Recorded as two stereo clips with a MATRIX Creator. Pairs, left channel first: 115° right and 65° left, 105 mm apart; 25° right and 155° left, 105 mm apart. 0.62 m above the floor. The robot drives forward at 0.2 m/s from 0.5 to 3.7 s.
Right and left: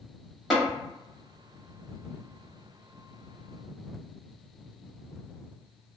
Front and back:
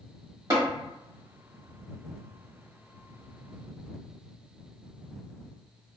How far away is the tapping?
About 1.5 m.